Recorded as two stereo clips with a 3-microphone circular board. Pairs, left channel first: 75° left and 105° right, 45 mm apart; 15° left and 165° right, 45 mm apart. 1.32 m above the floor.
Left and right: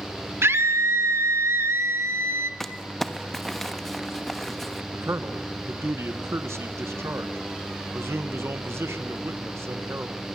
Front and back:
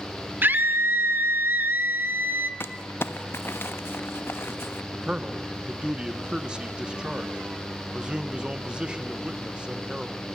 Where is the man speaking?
95° right, 1.4 m.